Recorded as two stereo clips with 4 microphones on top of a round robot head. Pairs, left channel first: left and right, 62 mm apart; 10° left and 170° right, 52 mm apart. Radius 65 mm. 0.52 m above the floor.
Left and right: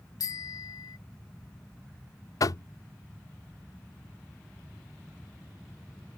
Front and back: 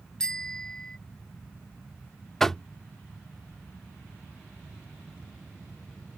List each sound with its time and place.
0.2 s a bicycle bell: 85° left
2.4 s knocking: 90° left